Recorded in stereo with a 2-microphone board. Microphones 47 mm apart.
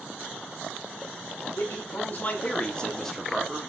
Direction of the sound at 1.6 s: 55° left (ahead or behind).